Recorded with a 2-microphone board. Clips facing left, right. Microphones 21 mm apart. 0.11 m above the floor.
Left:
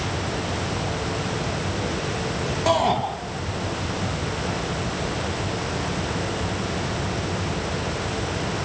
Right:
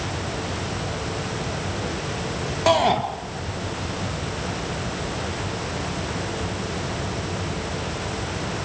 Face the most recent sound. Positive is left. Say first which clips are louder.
# right 2 dB
turn(degrees=-20)  # may be behind; listen again after turning